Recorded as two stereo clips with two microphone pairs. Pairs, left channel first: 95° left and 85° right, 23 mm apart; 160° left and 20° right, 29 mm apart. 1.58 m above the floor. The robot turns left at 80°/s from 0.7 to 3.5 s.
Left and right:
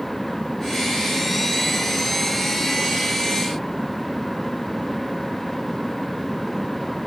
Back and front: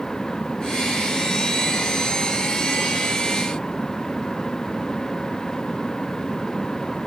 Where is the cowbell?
No cowbell in this recording.